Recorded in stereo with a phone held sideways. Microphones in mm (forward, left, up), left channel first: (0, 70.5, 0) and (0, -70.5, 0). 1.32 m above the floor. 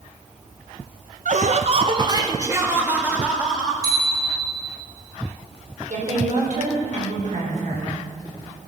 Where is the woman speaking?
65° right (ahead or behind), 5 m.